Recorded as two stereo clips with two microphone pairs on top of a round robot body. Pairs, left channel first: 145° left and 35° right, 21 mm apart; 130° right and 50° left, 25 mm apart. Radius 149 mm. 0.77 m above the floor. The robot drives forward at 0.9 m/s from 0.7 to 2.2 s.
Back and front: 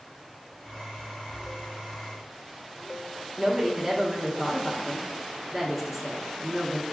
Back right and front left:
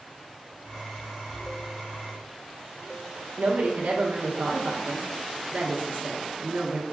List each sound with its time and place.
3.4 s a woman speaking: 40° left, 0.9 m